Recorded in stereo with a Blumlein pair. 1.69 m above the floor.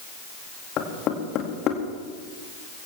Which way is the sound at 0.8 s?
35° left.